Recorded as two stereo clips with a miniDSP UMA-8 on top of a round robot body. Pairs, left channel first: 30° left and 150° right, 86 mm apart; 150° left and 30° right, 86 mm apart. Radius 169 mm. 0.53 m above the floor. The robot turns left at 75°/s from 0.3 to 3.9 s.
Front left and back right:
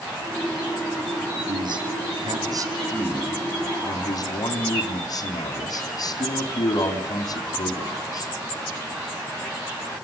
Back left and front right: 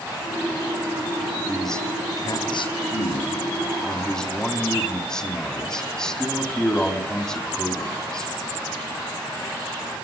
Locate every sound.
1.5 s a man speaking: 110° right, 4 m; by 8.3 s 70° left, 4 m